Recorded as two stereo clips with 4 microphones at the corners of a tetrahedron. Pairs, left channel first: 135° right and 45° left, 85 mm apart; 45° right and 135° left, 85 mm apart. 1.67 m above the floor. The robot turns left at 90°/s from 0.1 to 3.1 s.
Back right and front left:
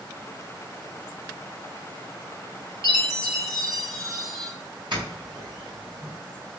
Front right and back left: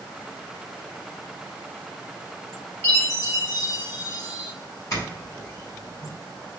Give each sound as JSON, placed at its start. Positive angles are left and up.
{"t": 2.8, "sound": "a chime", "azimuth_deg": 25, "distance_m": 1.2}
{"t": 4.9, "sound": "a doorbell", "azimuth_deg": 10, "distance_m": 2.0}